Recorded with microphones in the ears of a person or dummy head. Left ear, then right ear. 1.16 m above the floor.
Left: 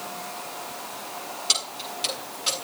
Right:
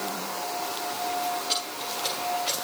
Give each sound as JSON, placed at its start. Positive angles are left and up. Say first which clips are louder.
{"t": 1.5, "sound": "keys jangling", "louder": "left 3 dB", "side_deg": 55, "distance_m": 7.0}